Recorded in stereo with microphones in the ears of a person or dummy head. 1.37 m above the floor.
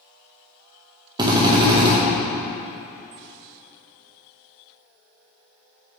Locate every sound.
1.2 s a drill: 20° right (ahead or behind), 1.6 m